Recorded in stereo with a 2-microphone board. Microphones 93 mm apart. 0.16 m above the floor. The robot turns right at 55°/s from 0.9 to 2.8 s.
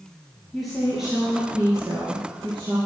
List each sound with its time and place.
0.5 s a woman speaking: straight behind, 3.5 m; by 2.8 s 80° right, 3.5 m